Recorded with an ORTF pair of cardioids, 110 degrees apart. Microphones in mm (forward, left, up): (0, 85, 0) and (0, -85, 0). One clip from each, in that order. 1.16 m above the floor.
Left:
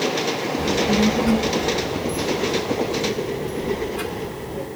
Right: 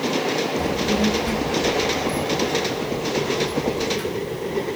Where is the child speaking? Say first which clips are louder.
Left 2 dB; 10° left, 0.9 m; by 4.7 s 45° left, 2.5 m.